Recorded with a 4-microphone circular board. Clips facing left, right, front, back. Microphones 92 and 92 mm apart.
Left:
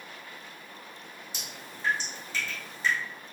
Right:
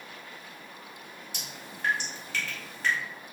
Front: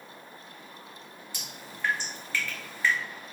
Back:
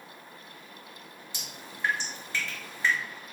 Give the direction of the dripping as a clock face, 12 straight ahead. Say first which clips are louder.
Right 1 dB, even; 4 o'clock.